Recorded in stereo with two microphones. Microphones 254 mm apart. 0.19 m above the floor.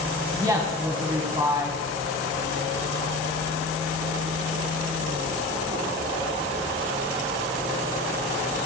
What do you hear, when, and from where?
0.3 s a woman speaking: 15° right (ahead or behind), 1.1 m